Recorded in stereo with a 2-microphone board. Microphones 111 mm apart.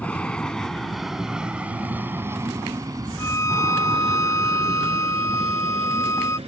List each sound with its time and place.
0.0 s an aircraft: 15° left (ahead or behind); by 6.5 s 65° right (ahead or behind)
3.2 s a violin: 30° left (ahead or behind)